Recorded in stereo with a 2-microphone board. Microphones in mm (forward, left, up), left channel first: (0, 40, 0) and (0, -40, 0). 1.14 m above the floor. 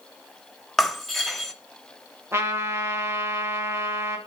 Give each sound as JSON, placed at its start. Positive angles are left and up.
{"t": 0.8, "sound": "breaking glass", "side_deg": 0, "distance_m": 1.0}
{"t": 2.3, "sound": "a trumpet", "side_deg": -30, "distance_m": 1.7}